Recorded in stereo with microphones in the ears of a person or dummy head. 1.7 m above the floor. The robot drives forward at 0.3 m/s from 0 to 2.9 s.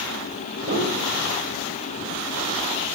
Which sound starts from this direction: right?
A piano, at 0.6 s.